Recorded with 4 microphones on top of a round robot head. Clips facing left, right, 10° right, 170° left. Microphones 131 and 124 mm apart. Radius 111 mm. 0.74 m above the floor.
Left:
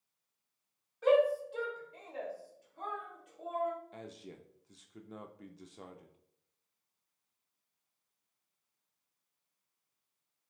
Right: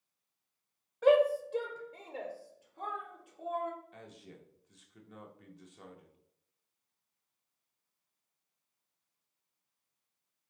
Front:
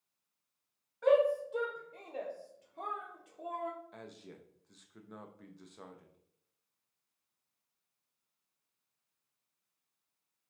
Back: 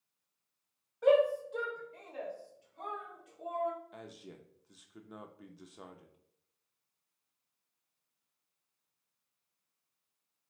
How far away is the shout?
About 0.8 m.